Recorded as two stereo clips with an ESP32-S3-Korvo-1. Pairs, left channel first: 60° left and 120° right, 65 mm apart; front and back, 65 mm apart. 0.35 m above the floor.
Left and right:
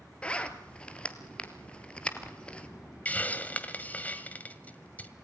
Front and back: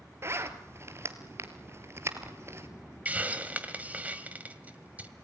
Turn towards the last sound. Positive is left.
turn(degrees=120)